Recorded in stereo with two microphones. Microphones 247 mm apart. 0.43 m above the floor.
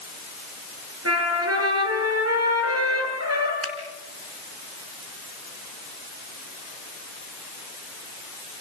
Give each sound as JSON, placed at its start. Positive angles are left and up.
{"t": 1.1, "sound": "a trumpet", "side_deg": -80, "distance_m": 7.0}
{"t": 3.6, "sound": "a finger snap", "side_deg": -70, "distance_m": 3.5}